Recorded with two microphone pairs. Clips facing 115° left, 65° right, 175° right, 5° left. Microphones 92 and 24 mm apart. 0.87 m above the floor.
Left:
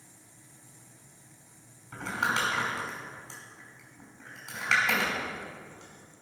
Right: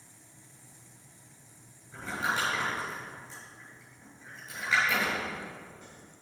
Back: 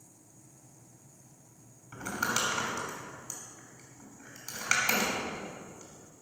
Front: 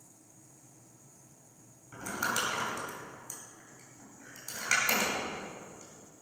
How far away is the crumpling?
About 5.5 m.